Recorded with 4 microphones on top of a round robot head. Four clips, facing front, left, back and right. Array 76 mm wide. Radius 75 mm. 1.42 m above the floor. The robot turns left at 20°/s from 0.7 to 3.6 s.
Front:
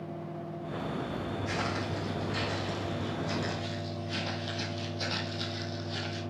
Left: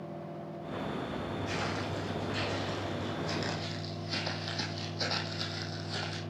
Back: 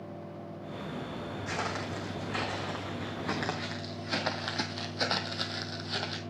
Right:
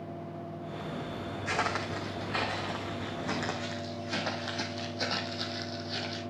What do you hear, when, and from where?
1.5 s footsteps: 100° right, 3.5 m; by 6.2 s 160° left, 2 m